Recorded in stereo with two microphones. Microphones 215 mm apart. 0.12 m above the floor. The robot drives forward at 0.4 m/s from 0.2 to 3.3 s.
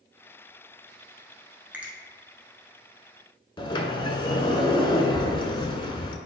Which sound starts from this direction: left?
A sliding door, at 3.6 s.